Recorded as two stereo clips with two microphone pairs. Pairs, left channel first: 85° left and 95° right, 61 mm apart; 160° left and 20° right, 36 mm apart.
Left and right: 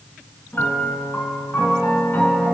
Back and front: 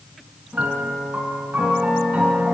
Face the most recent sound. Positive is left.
turn(degrees=30)